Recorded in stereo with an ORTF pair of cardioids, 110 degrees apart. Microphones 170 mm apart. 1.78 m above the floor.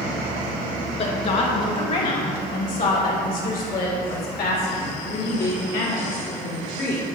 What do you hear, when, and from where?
1.0 s a woman speaking: 40° left, 3 m; by 7.0 s 70° left, 5.5 m